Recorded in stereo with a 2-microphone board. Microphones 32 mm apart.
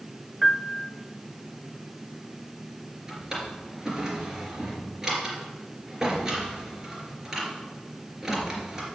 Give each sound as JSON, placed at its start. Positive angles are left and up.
{"t": 0.4, "sound": "a piano", "side_deg": -5, "distance_m": 0.6}
{"t": 3.1, "sound": "a drawer", "side_deg": -20, "distance_m": 3.0}